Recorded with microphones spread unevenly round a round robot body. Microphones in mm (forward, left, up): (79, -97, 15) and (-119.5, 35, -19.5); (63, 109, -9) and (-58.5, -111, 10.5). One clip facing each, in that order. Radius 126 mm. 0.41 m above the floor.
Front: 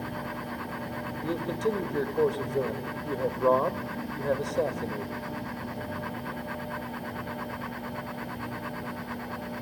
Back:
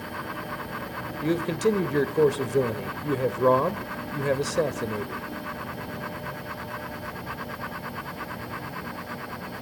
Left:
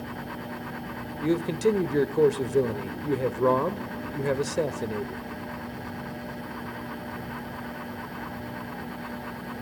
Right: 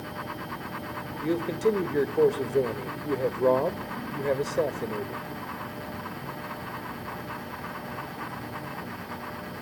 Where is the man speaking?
120° left, 1.5 m.